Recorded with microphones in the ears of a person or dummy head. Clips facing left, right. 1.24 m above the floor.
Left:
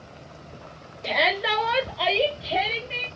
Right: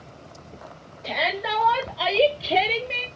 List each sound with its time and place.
1.0 s a shout: 55° left (ahead or behind), 1.1 m; by 3.1 s 60° right (ahead or behind), 1.1 m